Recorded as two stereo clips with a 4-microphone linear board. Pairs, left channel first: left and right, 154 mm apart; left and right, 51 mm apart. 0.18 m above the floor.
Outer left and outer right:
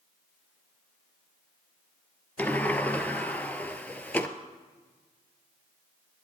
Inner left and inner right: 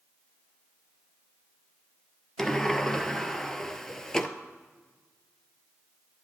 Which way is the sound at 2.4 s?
10° left (ahead or behind).